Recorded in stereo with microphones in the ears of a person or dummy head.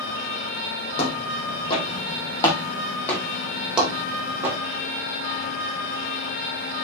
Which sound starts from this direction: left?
Footsteps, at 1.0 s.